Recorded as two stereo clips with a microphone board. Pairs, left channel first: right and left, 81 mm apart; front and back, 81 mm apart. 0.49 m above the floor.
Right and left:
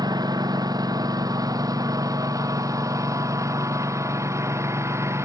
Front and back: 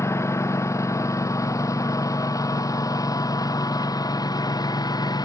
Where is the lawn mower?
55° left; by 5.3 s 35° left.